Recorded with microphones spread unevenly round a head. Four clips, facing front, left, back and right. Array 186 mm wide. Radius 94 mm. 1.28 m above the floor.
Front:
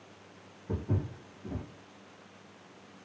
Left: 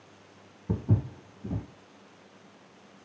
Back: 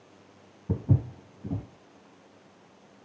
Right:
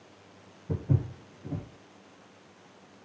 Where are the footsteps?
135° left, 2.0 m.